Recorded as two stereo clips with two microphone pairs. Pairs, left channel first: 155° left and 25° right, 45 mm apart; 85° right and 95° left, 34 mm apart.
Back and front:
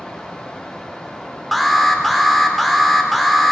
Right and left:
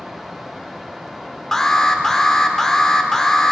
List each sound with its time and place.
1.5 s an alarm: 120° right, 0.6 m